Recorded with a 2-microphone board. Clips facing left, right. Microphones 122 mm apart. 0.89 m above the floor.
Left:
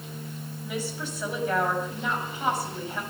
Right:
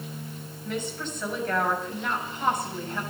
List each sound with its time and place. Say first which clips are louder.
0.6 s a woman speaking: right 1 dB; 10° left (ahead or behind), 6 m